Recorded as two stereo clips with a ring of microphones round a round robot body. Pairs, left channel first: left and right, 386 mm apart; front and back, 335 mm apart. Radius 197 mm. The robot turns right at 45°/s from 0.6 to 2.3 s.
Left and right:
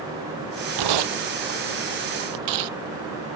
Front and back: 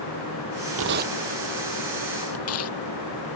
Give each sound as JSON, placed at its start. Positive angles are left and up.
{"t": 0.8, "sound": "tearing paper", "azimuth_deg": -125}